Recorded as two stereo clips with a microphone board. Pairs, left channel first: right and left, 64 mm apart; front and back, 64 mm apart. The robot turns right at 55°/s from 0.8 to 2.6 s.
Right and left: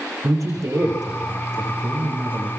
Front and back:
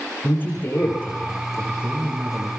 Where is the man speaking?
55° left, 8 m; by 2.5 s 150° left, 8 m.